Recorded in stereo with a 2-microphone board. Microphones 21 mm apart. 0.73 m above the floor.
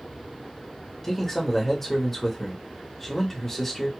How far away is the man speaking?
About 1.1 m.